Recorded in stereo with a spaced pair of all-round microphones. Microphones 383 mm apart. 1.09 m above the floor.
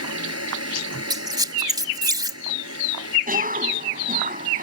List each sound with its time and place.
0.0 s a fan: 40° right (ahead or behind)
1.1 s a squeak: 10° right (ahead or behind)
3.3 s a cough: 20° right (ahead or behind)